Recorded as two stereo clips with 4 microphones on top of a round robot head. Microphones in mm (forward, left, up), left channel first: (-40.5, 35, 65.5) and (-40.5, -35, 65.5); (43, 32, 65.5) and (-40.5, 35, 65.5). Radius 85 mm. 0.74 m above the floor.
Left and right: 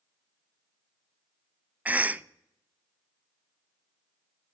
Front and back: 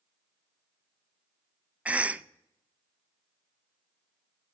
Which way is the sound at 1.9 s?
130° right.